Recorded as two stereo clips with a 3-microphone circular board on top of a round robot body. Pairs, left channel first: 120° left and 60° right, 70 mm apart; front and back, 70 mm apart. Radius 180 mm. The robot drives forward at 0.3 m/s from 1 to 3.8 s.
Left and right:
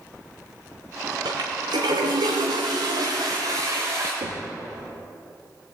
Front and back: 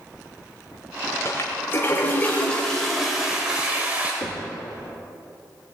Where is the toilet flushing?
50° right, 1.0 m; by 4.1 s 110° right, 0.9 m.